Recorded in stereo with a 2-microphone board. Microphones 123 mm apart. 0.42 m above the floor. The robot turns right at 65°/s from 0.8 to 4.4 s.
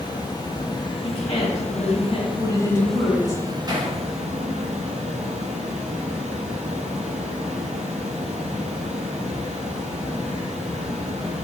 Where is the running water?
40° left, 1.0 m; by 11.4 s 90° right, 1.0 m.